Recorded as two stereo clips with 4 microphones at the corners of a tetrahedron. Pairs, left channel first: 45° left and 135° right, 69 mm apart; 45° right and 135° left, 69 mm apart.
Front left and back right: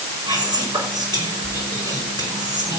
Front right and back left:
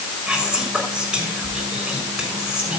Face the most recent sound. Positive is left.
turn(degrees=-145)